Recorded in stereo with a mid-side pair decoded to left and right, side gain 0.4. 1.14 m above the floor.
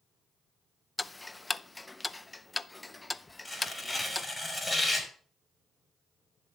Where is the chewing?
No chewing in this recording.